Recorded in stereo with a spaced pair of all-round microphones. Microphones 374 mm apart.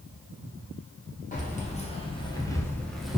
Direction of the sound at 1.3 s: 20° left (ahead or behind).